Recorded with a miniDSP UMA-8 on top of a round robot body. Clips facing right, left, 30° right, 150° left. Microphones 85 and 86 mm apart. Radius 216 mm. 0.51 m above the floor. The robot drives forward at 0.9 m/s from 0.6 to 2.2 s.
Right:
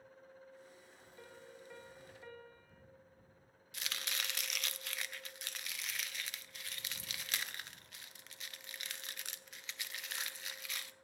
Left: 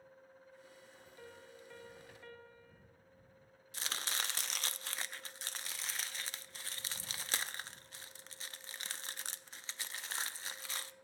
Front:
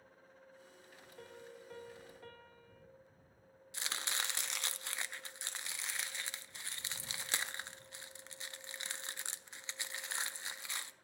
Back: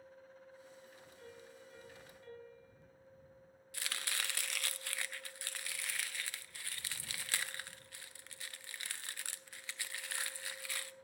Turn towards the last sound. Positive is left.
turn(degrees=35)